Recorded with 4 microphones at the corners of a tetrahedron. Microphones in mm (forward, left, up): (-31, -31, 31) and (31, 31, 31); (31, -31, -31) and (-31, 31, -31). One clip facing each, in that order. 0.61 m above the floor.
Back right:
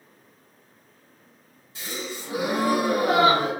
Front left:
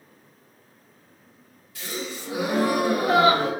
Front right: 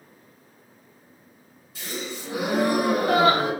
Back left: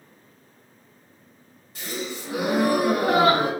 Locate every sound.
1.8 s a gasp: 165° left, 1.2 m